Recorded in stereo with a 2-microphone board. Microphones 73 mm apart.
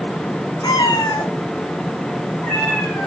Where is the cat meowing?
60° left (ahead or behind), 1.9 m; by 3.1 s 10° left (ahead or behind), 4 m.